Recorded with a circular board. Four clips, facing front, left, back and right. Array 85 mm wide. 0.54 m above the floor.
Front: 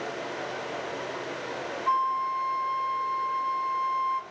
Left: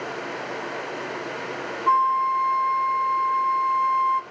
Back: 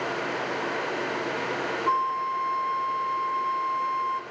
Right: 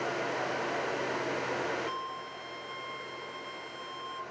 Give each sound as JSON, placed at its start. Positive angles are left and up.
{"t": 1.9, "sound": "a flute", "azimuth_deg": 95, "distance_m": 0.8}